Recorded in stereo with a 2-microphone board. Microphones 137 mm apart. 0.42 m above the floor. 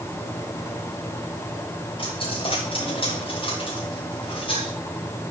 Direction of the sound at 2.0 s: 40° left (ahead or behind).